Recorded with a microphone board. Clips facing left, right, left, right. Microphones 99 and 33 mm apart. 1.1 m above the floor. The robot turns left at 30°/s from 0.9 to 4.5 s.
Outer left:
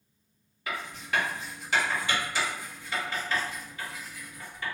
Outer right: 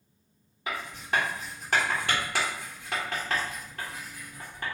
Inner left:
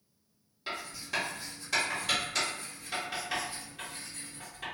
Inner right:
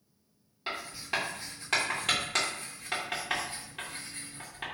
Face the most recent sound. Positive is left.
turn(degrees=-45)  # may be behind; listen again after turning